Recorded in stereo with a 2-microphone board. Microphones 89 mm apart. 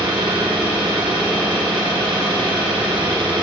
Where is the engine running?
80° right, 2.5 m.